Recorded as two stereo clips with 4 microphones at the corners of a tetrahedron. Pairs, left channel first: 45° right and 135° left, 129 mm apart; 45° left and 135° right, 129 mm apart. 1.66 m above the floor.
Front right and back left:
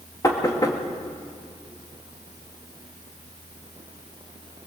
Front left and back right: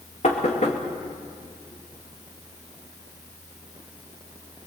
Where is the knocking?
15° left, 2.5 m.